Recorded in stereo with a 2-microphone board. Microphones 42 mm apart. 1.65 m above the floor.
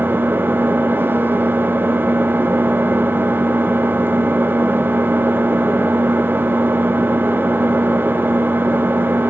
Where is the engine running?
55° right (ahead or behind), 2 m.